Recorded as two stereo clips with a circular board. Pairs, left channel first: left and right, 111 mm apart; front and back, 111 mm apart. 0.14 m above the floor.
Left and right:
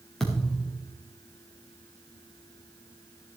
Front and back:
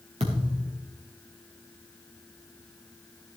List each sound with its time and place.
0.2 s a thud: 175° left, 5 m